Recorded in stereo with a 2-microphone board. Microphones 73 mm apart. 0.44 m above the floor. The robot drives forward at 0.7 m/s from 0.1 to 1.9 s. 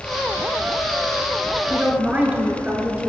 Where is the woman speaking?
15° right (ahead or behind), 2 m.